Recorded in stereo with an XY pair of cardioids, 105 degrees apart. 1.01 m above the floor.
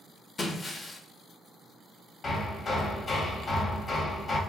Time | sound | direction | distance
0.4 | breaking glass | 35° left | 0.8 m
2.2 | hammering | 40° left | 1.0 m